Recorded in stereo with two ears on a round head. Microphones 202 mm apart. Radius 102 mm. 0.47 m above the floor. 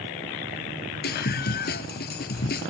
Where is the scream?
45° left (ahead or behind).